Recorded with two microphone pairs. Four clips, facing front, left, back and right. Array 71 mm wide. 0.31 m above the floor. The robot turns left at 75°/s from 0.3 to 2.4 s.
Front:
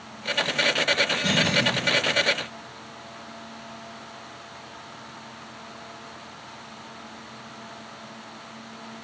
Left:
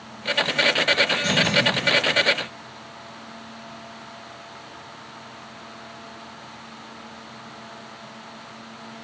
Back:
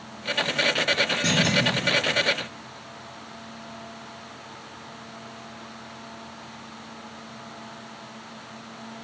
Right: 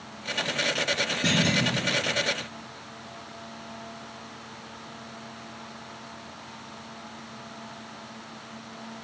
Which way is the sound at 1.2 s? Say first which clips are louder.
Right 1 dB, back 1 dB; 125° right.